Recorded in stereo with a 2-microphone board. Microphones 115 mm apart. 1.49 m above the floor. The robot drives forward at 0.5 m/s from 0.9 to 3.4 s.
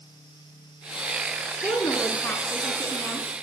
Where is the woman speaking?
15° left (ahead or behind), 4 m.